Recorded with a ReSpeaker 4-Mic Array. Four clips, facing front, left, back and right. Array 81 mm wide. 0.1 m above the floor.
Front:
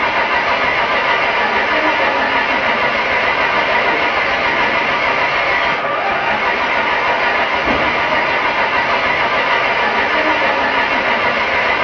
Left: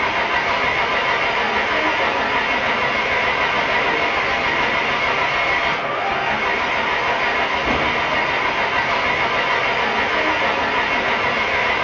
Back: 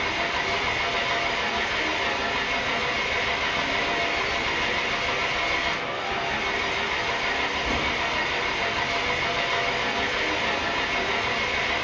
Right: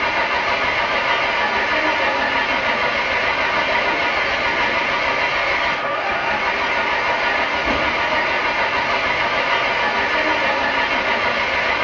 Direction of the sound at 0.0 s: Straight ahead.